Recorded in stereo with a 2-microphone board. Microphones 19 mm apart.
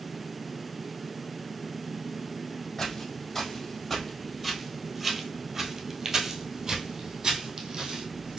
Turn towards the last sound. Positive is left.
turn(degrees=-45)  # may be behind; listen again after turning